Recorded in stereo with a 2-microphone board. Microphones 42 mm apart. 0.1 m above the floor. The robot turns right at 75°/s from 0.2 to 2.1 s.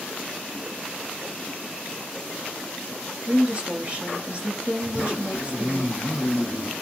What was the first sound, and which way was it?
A woman speaking, 30° right (ahead or behind).